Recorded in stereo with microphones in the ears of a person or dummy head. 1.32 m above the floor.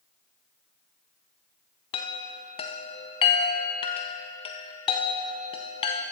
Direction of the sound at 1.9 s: 30° left (ahead or behind).